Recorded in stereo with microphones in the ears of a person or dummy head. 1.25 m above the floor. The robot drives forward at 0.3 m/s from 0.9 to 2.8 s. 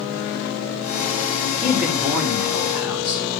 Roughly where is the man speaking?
Centre.